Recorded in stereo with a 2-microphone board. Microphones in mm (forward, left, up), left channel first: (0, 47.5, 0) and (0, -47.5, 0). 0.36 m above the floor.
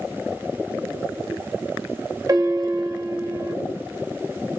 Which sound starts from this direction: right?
A piano, at 2.3 s.